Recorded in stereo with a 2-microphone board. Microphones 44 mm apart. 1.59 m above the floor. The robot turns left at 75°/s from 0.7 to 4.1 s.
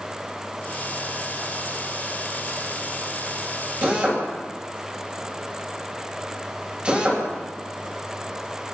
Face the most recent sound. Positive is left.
turn(degrees=-30)  # may be behind; listen again after turning